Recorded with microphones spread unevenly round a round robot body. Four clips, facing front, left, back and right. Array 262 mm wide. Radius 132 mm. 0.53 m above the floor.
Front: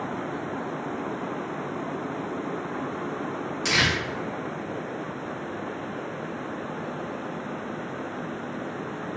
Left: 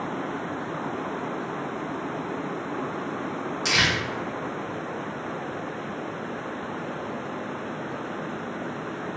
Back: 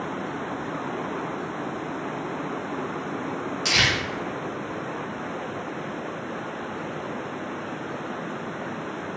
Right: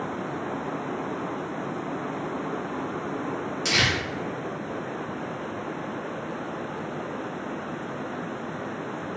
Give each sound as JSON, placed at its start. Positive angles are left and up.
{"t": 3.6, "sound": "crumpling", "azimuth_deg": 0, "distance_m": 1.4}